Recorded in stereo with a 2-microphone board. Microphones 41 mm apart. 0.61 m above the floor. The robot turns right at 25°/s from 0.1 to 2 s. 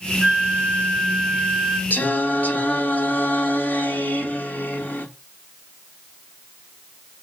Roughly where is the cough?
No cough in this recording.